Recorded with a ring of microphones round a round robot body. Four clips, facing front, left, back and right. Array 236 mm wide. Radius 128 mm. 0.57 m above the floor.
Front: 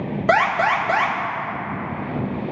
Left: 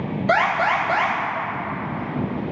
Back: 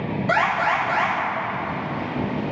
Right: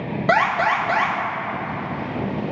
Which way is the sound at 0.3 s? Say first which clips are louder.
Right 1 dB, front 3 dB; 35° right.